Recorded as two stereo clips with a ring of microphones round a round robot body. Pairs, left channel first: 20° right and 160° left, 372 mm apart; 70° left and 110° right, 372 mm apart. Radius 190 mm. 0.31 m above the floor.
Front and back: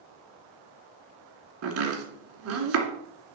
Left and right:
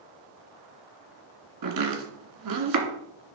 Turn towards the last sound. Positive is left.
turn(degrees=-150)